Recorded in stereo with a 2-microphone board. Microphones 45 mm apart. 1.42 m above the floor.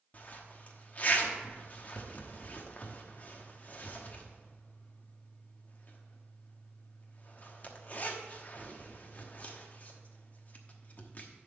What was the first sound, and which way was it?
A zipper, 35° left (ahead or behind).